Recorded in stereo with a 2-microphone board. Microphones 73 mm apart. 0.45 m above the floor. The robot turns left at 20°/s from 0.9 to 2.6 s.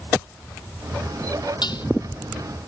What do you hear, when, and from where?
1.6 s dishes clattering: 85° left